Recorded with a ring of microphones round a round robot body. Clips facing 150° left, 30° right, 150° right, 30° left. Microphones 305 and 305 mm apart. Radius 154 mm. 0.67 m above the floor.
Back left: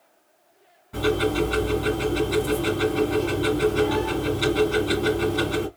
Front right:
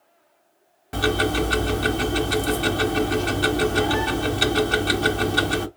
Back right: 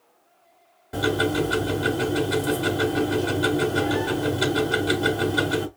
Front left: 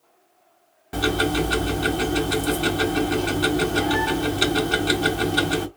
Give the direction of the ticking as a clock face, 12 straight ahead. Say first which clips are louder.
Back left 1 dB, even; 1 o'clock.